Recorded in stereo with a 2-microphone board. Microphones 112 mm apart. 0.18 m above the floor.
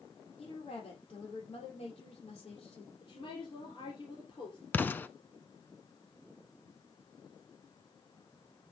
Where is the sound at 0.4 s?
65° left (ahead or behind), 5 m.